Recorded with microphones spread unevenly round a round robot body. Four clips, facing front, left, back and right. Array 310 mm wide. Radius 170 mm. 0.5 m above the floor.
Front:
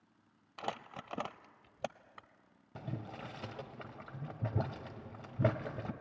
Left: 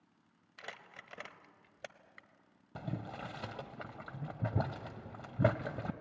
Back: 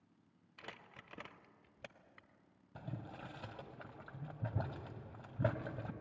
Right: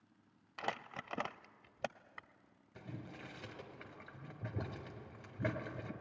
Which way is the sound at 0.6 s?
25° right.